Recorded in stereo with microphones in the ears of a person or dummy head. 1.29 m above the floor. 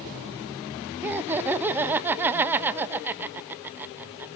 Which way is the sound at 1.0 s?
15° right (ahead or behind).